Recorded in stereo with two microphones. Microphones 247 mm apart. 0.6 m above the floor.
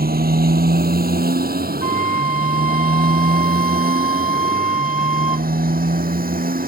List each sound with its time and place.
0.0 s a motorcycle: 35° right (ahead or behind)
1.8 s a flute: 55° left (ahead or behind)